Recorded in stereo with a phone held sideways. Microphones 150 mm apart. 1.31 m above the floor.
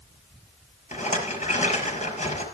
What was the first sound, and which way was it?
A rattle, 50° left (ahead or behind).